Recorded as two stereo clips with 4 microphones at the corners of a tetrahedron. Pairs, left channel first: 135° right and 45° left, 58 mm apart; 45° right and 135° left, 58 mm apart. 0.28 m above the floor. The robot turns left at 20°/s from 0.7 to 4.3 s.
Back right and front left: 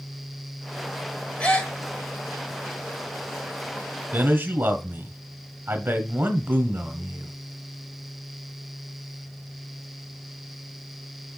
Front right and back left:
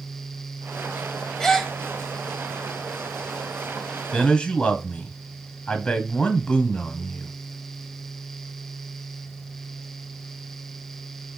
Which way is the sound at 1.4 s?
110° right.